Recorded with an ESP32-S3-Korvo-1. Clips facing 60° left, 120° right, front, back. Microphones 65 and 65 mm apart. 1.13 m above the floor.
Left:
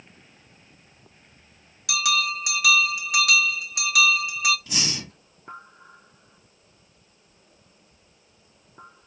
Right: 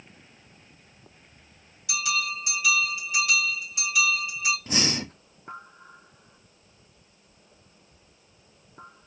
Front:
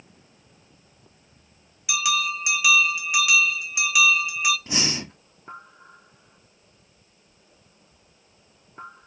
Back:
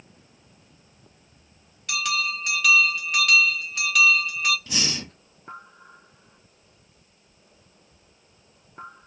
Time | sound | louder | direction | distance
1.9 | a bell | left 4 dB, front 2 dB | 80° left | 1.6 m
4.7 | breathing | right 4 dB, front 2 dB | 65° right | 1.0 m